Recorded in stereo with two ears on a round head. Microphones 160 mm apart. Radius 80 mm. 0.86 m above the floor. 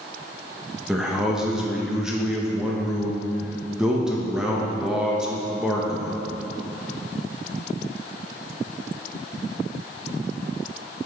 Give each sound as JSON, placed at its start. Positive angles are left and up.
{"t": 0.9, "sound": "a man speaking", "side_deg": -5, "distance_m": 1.0}